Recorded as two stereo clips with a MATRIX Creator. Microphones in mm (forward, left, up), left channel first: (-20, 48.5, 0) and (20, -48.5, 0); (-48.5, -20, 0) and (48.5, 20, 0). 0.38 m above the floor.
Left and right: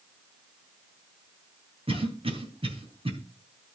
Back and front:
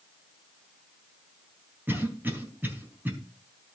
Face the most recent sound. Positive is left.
turn(degrees=-50)